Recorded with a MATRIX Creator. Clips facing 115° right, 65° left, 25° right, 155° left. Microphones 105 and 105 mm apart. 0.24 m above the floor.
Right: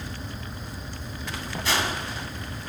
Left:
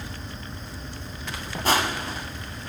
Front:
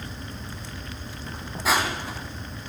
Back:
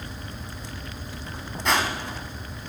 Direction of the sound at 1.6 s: 60° left.